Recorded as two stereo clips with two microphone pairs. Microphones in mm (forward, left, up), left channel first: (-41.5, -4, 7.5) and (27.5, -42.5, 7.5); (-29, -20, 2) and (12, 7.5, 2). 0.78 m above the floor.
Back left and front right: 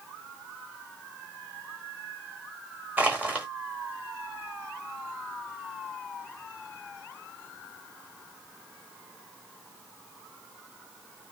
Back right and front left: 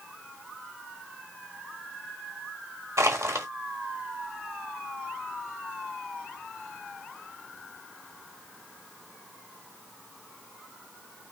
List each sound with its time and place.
3.0 s crushing: 40° left, 1.1 m